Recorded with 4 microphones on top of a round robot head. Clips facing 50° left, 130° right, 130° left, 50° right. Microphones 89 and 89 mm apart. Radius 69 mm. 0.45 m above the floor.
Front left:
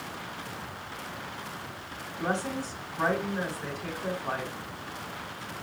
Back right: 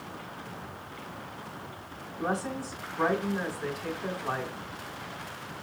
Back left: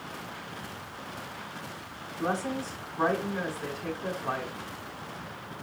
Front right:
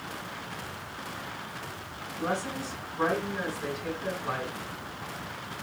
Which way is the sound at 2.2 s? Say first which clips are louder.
Front left 1 dB, back left 1 dB; 145° left.